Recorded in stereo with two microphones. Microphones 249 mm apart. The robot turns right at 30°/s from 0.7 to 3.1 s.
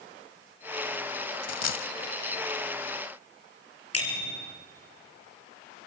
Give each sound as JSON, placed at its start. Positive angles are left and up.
{"t": 1.4, "sound": "a dropped coin", "side_deg": 75, "distance_m": 0.6}
{"t": 3.9, "sound": "a bicycle bell", "side_deg": 70, "distance_m": 5.5}